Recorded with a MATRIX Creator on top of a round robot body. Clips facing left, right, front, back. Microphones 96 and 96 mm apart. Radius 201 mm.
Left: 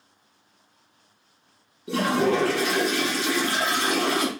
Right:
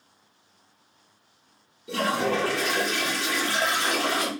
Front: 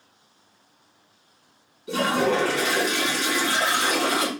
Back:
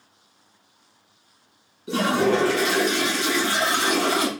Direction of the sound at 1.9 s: 120° left.